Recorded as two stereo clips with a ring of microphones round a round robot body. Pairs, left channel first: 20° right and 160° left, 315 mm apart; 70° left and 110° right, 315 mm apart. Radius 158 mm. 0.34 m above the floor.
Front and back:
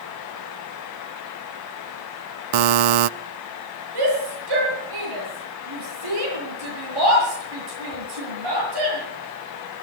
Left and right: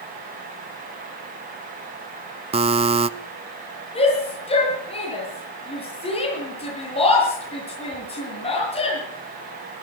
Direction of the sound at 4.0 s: 140° left.